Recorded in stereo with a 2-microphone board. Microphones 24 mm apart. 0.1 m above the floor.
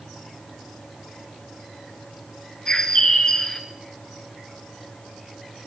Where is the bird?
25° left (ahead or behind), 1.9 m.